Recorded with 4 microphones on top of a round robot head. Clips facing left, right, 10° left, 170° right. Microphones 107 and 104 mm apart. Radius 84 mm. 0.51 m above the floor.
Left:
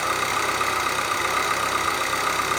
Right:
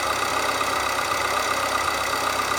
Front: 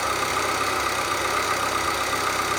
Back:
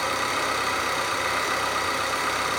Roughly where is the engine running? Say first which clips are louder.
Even, front 1 dB; ahead right.